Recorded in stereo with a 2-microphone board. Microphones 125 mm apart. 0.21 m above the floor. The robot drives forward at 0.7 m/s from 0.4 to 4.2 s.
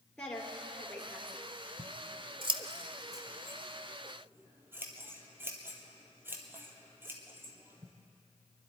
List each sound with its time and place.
0.2 s a woman speaking: 5° left (ahead or behind), 3.5 m
1.8 s scissors: 65° right (ahead or behind), 0.6 m; by 7.9 s 20° right (ahead or behind), 1.8 m